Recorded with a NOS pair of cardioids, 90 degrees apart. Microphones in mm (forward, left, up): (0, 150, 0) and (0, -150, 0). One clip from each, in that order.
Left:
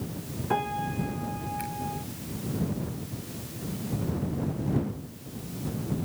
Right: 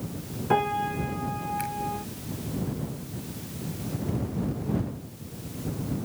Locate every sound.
0.5 s a piano: 30° right